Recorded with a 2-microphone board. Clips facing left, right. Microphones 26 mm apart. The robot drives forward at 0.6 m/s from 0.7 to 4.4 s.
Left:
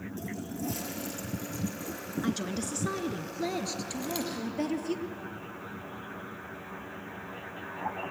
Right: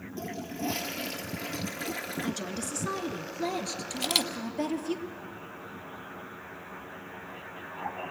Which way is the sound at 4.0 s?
80° right.